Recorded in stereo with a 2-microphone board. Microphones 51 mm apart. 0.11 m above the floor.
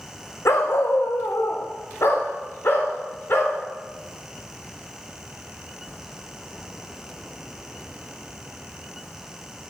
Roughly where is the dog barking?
Left.